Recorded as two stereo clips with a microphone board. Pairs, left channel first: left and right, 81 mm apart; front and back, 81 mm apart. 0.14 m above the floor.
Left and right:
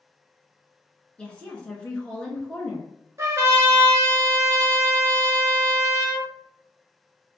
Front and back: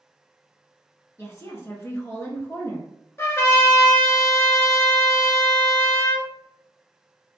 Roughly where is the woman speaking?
Ahead left.